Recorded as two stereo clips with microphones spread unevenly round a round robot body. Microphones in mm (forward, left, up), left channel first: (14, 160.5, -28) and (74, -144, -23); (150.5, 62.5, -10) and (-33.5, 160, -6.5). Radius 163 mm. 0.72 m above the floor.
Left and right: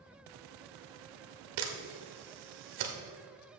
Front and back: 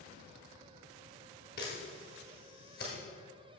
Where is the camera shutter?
90° right, 1.2 m.